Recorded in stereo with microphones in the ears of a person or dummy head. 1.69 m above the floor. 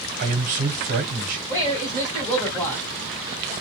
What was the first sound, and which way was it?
A man speaking, 50° right (ahead or behind).